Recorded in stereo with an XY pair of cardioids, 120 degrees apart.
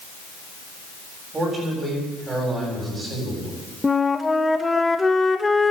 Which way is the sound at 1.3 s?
30° right.